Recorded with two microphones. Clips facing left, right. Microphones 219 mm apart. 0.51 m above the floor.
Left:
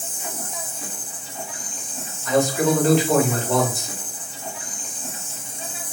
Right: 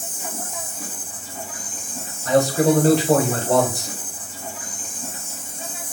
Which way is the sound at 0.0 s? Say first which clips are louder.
Right 1 dB; 45° right (ahead or behind).